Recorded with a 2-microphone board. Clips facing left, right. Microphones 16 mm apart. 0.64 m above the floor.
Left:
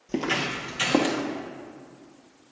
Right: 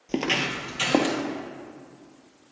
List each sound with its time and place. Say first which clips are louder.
0.1 s footsteps: right 1 dB; 35° right (ahead or behind), 0.7 m; by 1.2 s 30° right (ahead or behind), 1.1 m